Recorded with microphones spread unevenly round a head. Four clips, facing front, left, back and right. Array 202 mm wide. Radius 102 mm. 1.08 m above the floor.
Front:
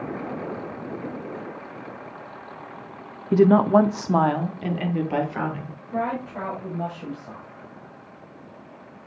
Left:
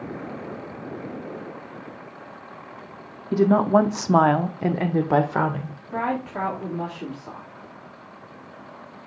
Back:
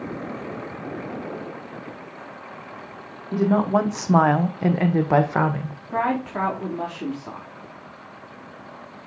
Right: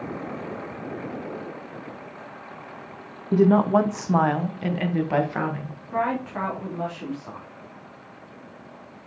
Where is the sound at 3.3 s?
Straight ahead, 0.8 m; by 5.7 s 150° left, 1.5 m.